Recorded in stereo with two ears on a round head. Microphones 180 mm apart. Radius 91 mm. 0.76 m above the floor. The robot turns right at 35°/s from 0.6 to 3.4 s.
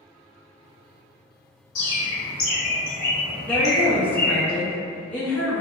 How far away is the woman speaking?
About 0.8 m.